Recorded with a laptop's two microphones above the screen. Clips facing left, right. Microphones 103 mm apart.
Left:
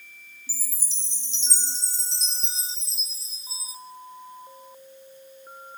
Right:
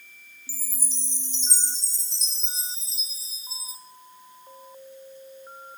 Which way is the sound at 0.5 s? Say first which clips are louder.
Right 5 dB; 45° right (ahead or behind).